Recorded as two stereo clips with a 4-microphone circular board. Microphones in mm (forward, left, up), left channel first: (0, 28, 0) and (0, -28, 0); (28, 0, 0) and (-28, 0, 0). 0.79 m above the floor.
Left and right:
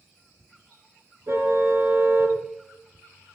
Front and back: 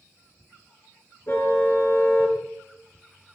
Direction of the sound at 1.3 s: 50° right.